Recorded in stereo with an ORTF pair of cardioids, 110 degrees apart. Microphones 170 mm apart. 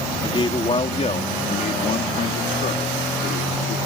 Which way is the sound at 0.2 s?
30° left.